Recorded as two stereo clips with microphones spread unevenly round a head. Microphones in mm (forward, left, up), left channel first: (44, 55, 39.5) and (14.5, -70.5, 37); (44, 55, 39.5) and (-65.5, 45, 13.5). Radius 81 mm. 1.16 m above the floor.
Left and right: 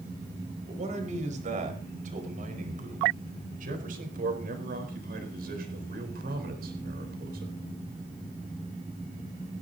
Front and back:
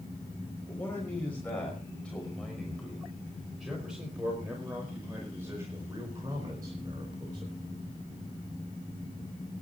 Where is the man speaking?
70° right, 5.5 m; by 7.5 s 115° right, 4.5 m.